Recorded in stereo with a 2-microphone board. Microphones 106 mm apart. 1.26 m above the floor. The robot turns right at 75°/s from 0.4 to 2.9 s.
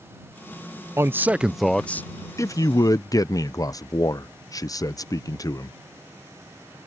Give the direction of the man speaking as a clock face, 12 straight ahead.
2 o'clock.